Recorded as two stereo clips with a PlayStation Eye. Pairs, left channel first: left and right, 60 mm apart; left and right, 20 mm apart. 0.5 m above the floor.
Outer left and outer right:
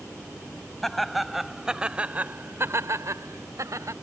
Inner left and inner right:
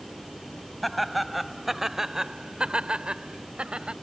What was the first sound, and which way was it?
Laughter, 5° left (ahead or behind).